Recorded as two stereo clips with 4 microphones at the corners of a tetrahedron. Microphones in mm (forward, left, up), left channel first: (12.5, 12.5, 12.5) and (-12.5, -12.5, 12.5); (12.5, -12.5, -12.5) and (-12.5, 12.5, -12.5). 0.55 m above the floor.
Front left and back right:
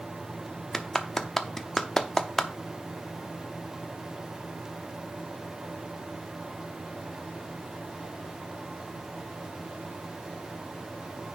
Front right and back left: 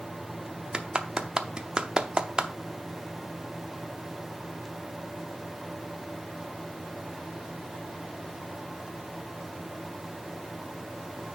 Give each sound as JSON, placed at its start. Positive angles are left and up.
{"t": 0.7, "sound": "a clap", "azimuth_deg": 110, "distance_m": 0.7}